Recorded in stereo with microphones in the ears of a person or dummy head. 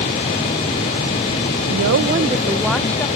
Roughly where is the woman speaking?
Right.